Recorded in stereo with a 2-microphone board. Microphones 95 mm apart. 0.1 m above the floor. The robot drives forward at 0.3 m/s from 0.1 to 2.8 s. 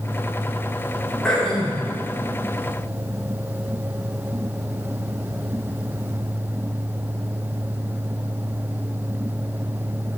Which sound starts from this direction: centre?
Throat clearing, at 1.2 s.